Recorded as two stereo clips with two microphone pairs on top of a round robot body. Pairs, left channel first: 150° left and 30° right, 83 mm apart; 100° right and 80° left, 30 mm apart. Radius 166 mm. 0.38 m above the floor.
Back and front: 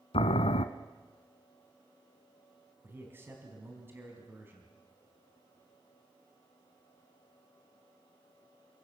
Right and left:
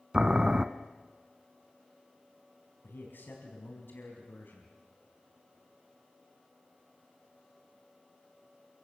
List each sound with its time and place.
0.1 s boiling: 150° left, 0.7 m
2.8 s a man speaking: 95° right, 4 m